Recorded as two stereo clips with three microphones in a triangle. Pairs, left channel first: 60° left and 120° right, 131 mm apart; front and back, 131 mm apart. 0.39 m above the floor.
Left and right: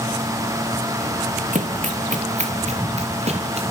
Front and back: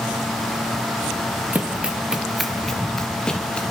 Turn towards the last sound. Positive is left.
turn(degrees=-85)